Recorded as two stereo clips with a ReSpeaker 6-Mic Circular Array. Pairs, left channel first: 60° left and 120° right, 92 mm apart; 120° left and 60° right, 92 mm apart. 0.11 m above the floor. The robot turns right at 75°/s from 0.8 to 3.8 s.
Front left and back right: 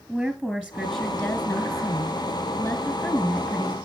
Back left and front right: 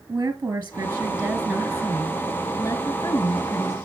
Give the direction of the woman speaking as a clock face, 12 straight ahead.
1 o'clock.